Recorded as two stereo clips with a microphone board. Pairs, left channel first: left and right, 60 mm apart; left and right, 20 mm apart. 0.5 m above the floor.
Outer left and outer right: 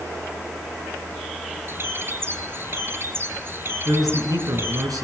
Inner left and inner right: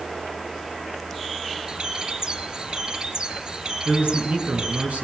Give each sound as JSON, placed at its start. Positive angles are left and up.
{"t": 1.7, "sound": "a bird", "side_deg": -40, "distance_m": 1.7}
{"t": 3.9, "sound": "a man speaking", "side_deg": -80, "distance_m": 8.0}